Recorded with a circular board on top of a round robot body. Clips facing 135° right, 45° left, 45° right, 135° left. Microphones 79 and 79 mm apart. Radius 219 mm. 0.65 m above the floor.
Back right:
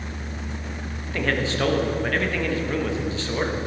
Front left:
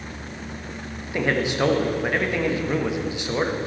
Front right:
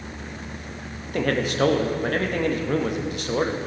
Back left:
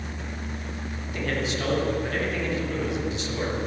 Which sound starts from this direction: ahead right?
A man speaking, at 1.1 s.